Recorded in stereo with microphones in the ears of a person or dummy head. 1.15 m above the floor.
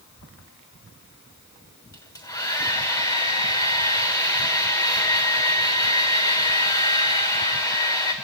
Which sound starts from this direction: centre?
A hair dryer, at 1.9 s.